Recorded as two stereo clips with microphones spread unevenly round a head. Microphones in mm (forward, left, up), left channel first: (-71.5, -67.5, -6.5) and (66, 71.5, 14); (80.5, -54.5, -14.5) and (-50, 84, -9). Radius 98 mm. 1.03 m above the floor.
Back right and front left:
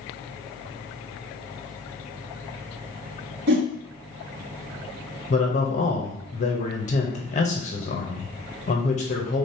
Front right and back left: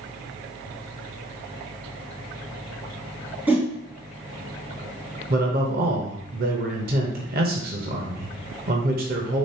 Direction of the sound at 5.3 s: 175° left.